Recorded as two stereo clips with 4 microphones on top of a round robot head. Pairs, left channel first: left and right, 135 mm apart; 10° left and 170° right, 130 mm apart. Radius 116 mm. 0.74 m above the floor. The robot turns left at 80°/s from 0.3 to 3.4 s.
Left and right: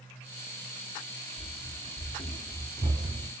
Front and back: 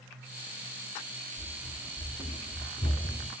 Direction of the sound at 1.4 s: 145° left.